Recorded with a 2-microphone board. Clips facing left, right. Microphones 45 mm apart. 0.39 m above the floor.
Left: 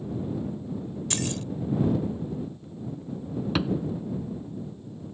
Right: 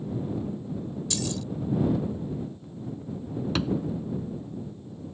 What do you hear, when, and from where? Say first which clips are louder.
1.1 s keys jangling: left 1 dB; 50° left (ahead or behind)
3.5 s a thud: left 1 dB; 10° left (ahead or behind)